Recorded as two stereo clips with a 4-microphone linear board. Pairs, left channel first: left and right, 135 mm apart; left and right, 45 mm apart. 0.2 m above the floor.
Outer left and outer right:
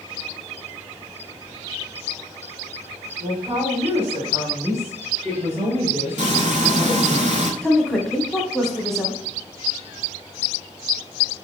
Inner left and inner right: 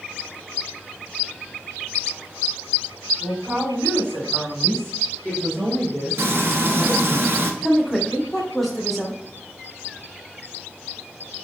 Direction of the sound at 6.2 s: 60° right (ahead or behind).